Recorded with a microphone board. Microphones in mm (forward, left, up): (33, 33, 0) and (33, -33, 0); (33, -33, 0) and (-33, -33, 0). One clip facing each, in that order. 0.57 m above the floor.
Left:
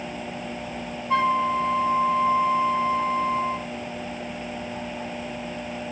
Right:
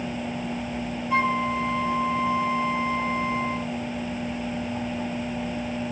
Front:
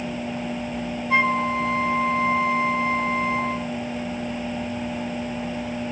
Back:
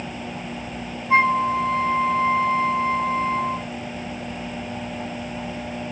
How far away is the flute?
About 3 m.